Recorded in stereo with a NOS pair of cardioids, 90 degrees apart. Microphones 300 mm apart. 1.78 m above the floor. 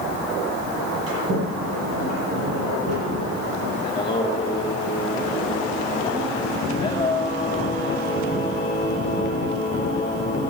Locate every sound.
1.1 s a sliding door: 55° right, 9 m
3.8 s singing: 20° left, 4.5 m